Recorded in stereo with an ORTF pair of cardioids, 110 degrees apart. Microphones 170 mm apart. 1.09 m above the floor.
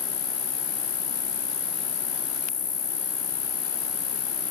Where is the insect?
45° left.